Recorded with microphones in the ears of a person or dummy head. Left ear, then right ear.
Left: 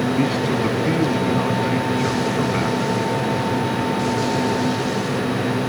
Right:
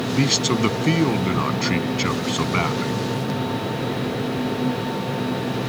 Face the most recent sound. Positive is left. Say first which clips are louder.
# even
turn(degrees=-75)  # may be behind; listen again after turning